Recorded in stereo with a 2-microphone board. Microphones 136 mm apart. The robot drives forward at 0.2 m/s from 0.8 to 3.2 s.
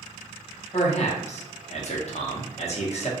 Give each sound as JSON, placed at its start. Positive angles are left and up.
{"t": 0.7, "sound": "a man speaking", "side_deg": 55, "distance_m": 0.9}